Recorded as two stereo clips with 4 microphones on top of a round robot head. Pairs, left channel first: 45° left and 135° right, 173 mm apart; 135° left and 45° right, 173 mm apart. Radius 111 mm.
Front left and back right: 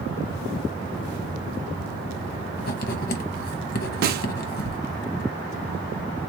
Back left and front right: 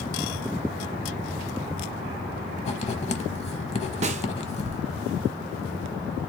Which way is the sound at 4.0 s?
100° right.